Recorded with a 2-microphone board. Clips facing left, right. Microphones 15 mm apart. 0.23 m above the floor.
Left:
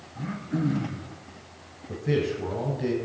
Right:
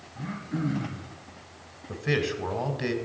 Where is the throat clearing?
5° left (ahead or behind), 1.9 m.